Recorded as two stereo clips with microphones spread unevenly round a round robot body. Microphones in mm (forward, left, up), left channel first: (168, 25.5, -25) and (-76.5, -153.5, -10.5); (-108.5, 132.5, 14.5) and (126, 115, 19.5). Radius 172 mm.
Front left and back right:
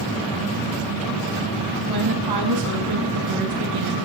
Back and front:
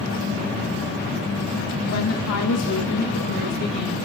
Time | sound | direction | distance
1.9 | a woman speaking | 170° right | 5 m